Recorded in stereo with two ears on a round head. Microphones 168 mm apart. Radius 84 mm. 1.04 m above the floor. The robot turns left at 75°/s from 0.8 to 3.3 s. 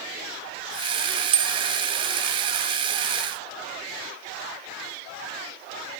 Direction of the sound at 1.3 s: 30° right (ahead or behind).